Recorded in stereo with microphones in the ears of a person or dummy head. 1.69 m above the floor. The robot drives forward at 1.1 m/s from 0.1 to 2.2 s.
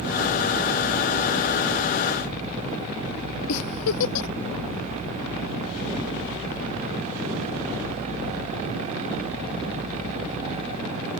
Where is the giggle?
85° left.